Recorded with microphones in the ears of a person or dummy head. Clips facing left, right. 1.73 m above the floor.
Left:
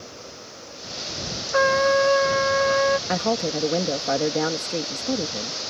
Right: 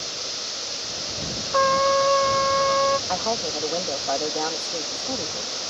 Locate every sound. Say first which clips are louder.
1.5 s a trumpet: left 2 dB; 15° left (ahead or behind)
3.1 s a woman speaking: left 3 dB; 25° left (ahead or behind)